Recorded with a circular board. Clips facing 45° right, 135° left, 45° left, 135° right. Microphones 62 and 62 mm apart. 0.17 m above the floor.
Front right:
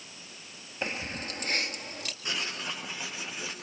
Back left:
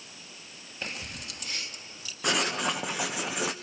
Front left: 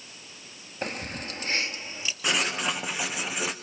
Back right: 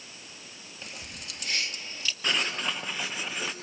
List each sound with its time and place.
0.8 s keys jangling: 20° left, 1.8 m; by 2.1 s 30° right, 2 m
2.2 s writing: 125° left, 2 m